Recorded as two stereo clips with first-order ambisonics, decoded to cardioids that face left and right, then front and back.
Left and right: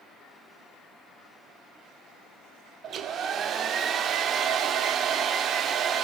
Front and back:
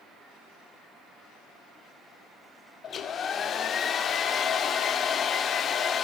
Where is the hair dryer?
50° right, 0.5 m.